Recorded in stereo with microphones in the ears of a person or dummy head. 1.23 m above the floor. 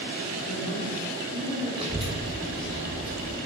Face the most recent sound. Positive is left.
turn(degrees=-25)  # may be behind; listen again after turning